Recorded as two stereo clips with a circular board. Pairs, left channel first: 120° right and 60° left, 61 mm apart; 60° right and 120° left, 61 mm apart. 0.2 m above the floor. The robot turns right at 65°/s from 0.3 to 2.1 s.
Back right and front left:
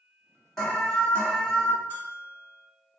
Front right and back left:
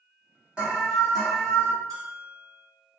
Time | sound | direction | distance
0.6 | an alarm | 160° left | 1.1 m
1.9 | a bell | 115° left | 0.9 m